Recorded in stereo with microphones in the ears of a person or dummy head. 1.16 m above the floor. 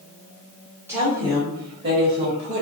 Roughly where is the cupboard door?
No cupboard door in this recording.